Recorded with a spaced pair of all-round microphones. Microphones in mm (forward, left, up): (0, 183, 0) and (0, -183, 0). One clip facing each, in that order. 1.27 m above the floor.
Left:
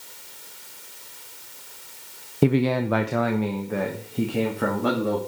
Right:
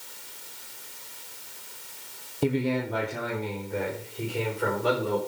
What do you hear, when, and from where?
2.4 s a man speaking: 70° left (ahead or behind), 0.6 m; by 5.2 s 65° left (ahead or behind), 2.5 m